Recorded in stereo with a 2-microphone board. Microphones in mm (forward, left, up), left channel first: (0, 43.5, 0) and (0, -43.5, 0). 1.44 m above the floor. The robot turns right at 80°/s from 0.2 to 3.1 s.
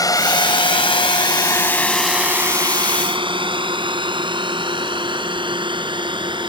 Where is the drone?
45° left (ahead or behind); by 6.5 s 70° right (ahead or behind).